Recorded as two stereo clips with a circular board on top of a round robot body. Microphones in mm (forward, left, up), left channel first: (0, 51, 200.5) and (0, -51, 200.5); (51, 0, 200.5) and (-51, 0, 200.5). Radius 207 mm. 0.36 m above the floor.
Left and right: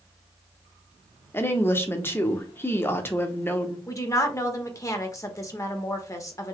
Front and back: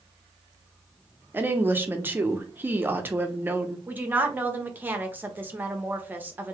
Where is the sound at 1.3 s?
130° left, 1.0 m.